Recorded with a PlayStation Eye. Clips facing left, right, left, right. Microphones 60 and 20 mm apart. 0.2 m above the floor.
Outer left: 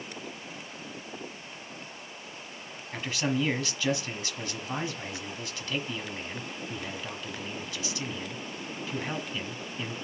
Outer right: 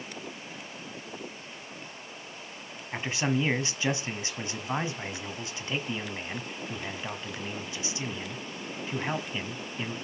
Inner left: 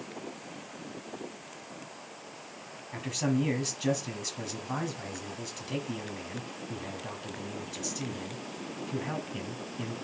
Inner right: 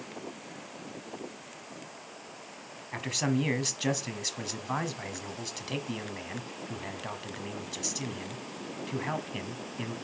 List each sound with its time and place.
2.9 s a man speaking: 25° right (ahead or behind), 1.2 m